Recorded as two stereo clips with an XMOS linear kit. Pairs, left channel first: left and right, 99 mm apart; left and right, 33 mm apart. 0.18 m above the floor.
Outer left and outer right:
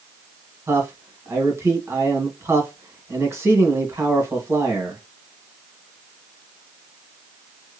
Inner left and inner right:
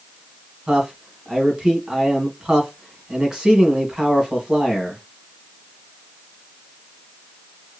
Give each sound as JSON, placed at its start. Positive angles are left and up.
{"t": 0.7, "sound": "a man speaking", "side_deg": -25, "distance_m": 1.1}